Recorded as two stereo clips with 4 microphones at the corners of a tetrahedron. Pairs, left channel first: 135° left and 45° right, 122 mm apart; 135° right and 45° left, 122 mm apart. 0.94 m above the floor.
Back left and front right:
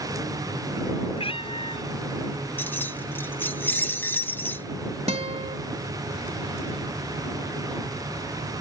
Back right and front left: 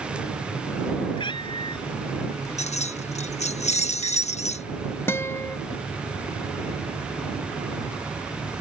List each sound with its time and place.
1.1 s a cat meowing: 175° left
2.6 s keys jangling: 155° right
5.1 s a guitar: 70° right